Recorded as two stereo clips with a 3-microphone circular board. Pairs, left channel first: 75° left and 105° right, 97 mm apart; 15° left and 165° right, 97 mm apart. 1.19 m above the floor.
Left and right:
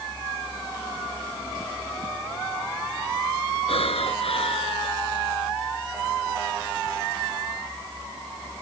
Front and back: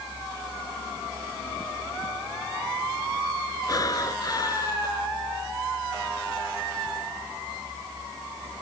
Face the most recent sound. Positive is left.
turn(degrees=65)